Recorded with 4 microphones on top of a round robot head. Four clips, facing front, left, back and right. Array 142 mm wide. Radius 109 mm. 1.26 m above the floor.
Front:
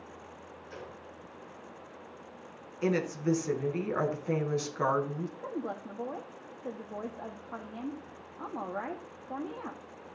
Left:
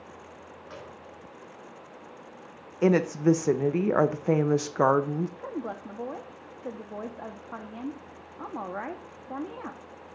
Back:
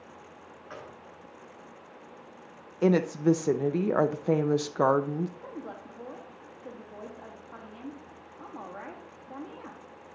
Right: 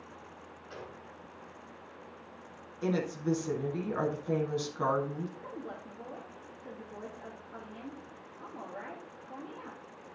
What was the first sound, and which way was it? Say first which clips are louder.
A gunshot: left 1 dB, back 2 dB; 165° left.